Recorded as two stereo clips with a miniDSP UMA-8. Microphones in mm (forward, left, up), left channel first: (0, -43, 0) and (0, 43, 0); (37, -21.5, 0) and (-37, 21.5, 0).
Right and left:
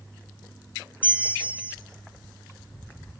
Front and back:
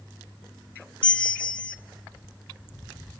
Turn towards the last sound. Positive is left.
turn(degrees=35)